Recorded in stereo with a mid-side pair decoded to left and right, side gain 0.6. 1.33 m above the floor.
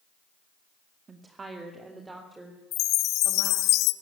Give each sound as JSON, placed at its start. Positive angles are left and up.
{"t": 1.1, "sound": "a woman speaking", "azimuth_deg": -35, "distance_m": 2.0}
{"t": 2.7, "sound": "a chime", "azimuth_deg": 65, "distance_m": 0.8}